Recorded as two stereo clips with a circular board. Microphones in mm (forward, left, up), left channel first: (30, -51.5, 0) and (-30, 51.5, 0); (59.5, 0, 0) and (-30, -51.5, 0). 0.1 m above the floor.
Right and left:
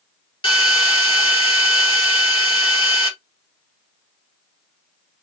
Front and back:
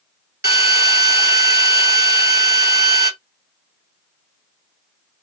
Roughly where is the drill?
Right.